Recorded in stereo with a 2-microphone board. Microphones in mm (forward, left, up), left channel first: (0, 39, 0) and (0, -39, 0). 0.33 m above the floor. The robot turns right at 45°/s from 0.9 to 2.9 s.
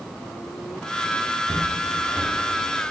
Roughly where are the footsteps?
Right.